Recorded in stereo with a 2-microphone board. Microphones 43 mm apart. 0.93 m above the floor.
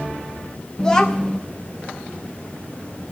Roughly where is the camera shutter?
No camera shutter in this recording.